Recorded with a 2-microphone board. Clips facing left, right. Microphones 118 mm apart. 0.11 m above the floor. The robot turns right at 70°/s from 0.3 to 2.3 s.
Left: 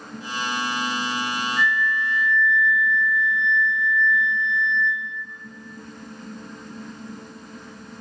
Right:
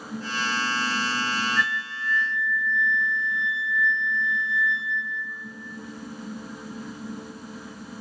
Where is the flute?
65° left, 2.0 m; by 5.1 s 115° left, 2.0 m.